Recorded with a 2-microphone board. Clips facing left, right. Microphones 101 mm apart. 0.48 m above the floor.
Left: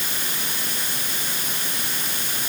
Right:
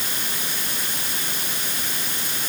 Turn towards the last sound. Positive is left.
No sound to turn to.